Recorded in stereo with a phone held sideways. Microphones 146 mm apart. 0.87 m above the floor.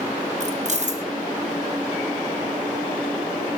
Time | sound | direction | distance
0.4 | keys jangling | 50° right (ahead or behind) | 0.6 m